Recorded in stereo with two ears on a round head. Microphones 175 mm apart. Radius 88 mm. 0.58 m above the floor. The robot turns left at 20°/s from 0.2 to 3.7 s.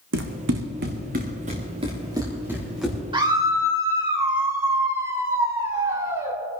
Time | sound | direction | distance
0.1 | running footsteps | 70° right (ahead or behind) | 1.7 m
3.1 | a scream | 25° right (ahead or behind) | 2.5 m